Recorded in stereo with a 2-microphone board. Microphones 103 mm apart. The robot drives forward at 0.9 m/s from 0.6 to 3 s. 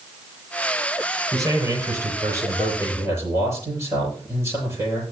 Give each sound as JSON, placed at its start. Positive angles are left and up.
{"t": 1.3, "sound": "a man speaking", "side_deg": -35, "distance_m": 6.5}